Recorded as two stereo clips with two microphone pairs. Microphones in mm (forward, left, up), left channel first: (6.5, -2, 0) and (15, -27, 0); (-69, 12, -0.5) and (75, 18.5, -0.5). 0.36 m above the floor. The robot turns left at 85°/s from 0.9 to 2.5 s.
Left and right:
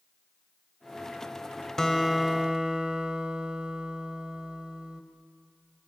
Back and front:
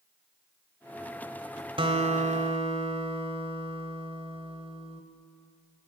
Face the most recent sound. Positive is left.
turn(degrees=-25)